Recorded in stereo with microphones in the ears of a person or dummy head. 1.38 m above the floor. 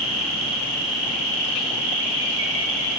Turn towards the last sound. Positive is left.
turn(degrees=-70)  # may be behind; listen again after turning